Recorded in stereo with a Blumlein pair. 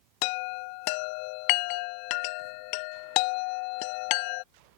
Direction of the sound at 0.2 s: 45° left.